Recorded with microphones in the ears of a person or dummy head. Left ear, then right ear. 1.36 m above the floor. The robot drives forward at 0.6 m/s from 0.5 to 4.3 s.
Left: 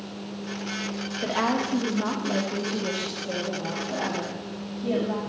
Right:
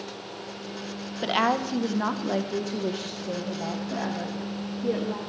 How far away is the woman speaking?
About 0.8 m.